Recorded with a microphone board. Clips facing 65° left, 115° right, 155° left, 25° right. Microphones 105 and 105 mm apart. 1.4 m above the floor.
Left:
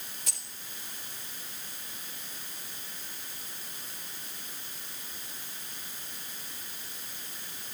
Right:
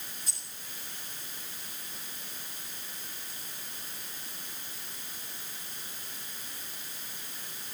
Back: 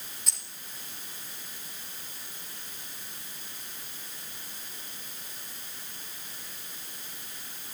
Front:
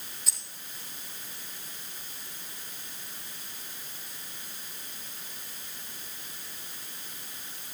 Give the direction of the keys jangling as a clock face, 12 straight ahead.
10 o'clock.